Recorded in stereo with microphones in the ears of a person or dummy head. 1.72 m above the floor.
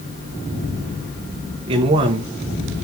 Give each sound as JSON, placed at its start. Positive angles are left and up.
{"t": 1.7, "sound": "a man speaking", "side_deg": -30, "distance_m": 1.0}